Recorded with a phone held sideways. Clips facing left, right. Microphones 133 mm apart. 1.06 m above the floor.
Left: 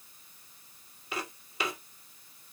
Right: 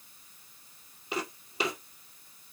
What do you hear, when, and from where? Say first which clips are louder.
1.1 s footsteps: right 4 dB; 25° right (ahead or behind), 1.7 m